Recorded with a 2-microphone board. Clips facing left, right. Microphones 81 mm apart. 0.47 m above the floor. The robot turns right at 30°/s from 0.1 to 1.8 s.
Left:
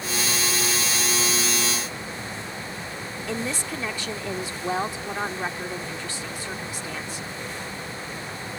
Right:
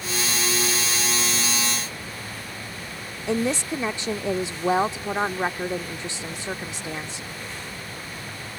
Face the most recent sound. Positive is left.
turn(degrees=-25)  # may be behind; listen again after turning